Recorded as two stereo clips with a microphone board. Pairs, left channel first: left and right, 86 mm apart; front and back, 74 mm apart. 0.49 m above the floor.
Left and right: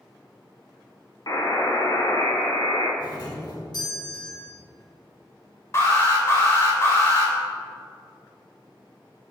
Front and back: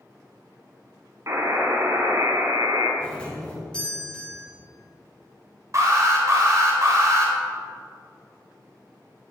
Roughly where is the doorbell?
Left.